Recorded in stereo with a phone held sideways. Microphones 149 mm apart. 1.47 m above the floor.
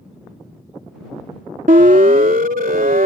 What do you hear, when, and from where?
1.7 s a siren: 65° right (ahead or behind); by 3.1 s 75° right (ahead or behind)